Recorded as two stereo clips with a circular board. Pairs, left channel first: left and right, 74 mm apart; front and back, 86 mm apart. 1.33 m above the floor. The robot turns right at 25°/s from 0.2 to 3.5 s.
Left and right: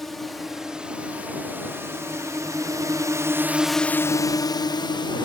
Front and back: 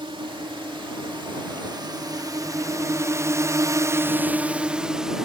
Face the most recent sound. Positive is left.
turn(degrees=95)